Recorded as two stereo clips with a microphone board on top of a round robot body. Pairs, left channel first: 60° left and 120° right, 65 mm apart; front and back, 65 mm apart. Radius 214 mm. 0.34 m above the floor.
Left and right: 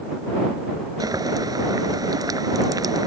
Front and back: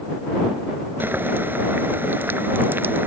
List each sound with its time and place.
1.0 s boiling: 125° right